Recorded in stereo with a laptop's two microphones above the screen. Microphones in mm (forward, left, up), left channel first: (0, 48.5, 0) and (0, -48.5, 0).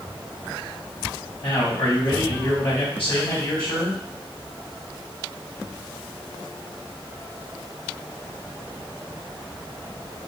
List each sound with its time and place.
1.4 s a man speaking: 65° left (ahead or behind), 2 m